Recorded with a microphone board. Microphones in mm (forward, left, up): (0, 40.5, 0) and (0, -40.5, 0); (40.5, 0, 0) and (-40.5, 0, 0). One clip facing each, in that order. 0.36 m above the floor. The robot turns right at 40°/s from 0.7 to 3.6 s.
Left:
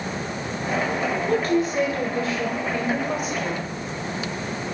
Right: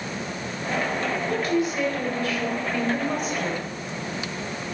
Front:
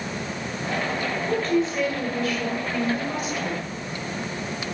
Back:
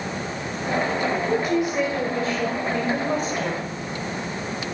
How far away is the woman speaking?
About 1.8 m.